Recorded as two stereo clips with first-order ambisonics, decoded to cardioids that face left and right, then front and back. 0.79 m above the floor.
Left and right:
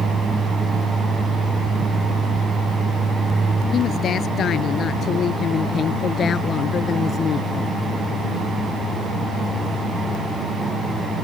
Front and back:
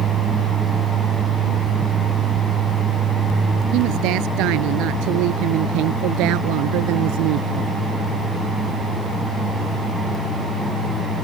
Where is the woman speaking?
150° left; by 7.7 s 155° left.